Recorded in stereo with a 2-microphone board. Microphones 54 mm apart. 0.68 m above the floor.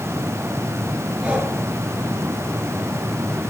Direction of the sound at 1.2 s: 20° right (ahead or behind).